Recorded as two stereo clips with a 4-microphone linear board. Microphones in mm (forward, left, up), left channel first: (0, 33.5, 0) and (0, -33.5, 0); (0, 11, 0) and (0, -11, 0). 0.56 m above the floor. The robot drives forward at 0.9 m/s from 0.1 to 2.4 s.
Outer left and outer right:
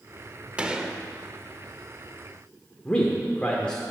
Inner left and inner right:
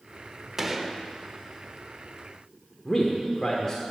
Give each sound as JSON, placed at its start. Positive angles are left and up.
{"t": 0.6, "sound": "a gunshot", "side_deg": -15, "distance_m": 0.8}
{"t": 2.9, "sound": "a man speaking", "side_deg": 15, "distance_m": 1.3}